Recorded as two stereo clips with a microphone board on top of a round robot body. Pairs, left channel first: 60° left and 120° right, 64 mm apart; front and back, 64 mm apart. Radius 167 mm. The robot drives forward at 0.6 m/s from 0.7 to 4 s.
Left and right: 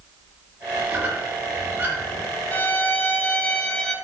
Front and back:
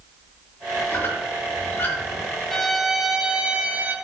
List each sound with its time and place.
0.9 s a squeak: 60° right, 4 m; by 2.3 s 70° right, 3.5 m
2.5 s a violin: 80° left, 1.6 m; by 4.0 s 130° left, 1.7 m